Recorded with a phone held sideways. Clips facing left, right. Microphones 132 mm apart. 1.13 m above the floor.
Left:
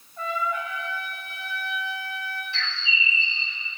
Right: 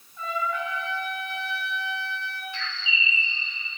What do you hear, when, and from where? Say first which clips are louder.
0.2 s a trumpet: left 1 dB; 60° left (ahead or behind), 2.5 m
2.5 s a bird: left 1 dB; 90° left, 1.5 m